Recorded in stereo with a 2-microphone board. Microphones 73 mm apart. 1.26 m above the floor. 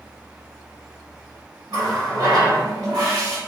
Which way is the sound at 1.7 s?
55° right (ahead or behind).